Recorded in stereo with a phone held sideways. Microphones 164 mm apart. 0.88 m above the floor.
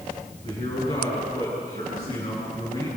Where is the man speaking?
40° left (ahead or behind), 8.5 m.